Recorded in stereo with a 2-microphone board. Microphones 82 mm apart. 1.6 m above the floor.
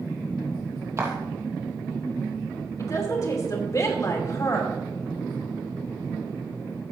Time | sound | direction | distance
1.0 | footsteps | 35° right (ahead or behind) | 2.5 m
2.8 | a woman speaking | 40° left (ahead or behind) | 2.5 m